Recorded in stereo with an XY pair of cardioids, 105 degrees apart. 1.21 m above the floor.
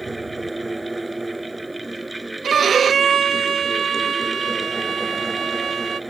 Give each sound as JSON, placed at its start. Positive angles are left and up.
{"t": 0.0, "sound": "a fan", "azimuth_deg": -15}
{"t": 2.4, "sound": "a violin", "azimuth_deg": -45}